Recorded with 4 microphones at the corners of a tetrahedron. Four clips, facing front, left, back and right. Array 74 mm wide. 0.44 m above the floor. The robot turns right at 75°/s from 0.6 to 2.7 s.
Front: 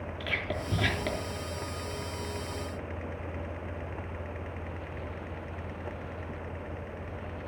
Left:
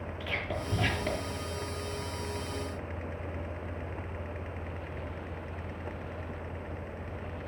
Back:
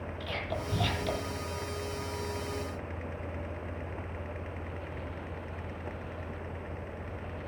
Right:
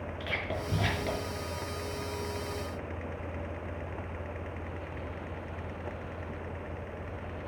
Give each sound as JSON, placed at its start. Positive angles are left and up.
{"t": 0.2, "sound": "whispering", "azimuth_deg": -35, "distance_m": 5.0}